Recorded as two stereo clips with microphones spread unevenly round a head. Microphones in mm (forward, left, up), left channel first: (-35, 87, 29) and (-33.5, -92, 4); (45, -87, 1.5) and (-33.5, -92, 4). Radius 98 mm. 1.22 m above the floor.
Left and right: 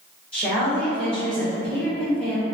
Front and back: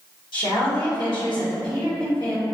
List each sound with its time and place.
0.3 s a woman speaking: 5° left, 1.7 m